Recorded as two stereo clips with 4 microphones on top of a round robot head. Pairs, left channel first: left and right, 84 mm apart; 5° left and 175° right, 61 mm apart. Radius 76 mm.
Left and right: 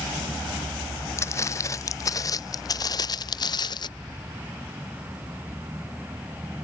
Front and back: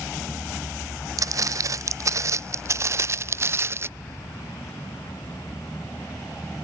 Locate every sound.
1.2 s footsteps: 155° left; by 3.9 s 135° left